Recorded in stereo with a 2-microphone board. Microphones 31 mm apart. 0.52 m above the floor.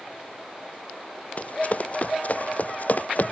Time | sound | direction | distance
1.4 | running footsteps | 45° left (ahead or behind) | ?